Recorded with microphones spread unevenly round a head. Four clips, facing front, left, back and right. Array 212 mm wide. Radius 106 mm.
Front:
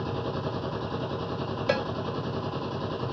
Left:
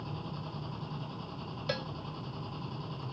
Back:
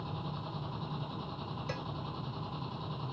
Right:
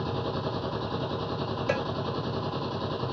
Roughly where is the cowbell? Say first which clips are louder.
Right 7 dB, front 16 dB; ahead.